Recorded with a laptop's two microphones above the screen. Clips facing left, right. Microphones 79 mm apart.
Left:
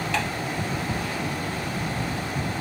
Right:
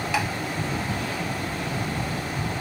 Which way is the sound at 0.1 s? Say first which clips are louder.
Right 2 dB; 10° right (ahead or behind).